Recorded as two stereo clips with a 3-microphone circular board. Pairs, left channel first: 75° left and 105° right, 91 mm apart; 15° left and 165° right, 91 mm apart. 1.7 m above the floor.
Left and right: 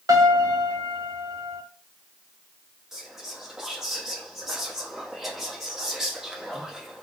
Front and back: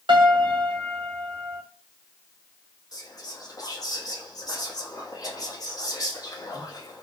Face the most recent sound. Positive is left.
turn(degrees=-20)